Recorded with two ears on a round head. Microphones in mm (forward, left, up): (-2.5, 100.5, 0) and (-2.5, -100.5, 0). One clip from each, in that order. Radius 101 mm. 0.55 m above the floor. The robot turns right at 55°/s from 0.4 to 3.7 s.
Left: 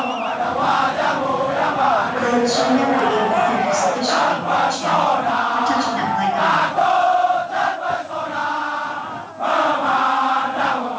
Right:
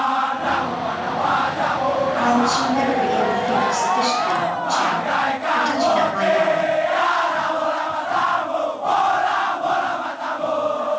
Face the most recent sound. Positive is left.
turn(degrees=-95)